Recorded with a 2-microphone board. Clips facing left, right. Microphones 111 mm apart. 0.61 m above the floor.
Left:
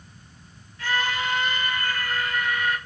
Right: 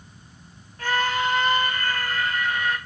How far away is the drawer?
I don't hear a drawer.